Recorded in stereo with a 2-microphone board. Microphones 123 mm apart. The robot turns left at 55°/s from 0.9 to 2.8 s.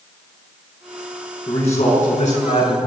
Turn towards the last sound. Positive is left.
turn(degrees=55)